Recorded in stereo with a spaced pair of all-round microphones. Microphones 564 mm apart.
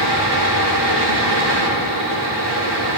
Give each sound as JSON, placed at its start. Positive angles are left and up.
{"t": 0.0, "sound": "a fan", "side_deg": -45, "distance_m": 1.7}